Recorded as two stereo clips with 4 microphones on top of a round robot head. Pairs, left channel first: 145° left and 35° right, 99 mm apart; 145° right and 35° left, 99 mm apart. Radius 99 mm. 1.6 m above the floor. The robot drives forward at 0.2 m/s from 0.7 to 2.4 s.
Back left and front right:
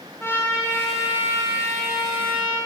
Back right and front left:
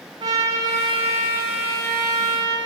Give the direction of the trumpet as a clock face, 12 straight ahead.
9 o'clock.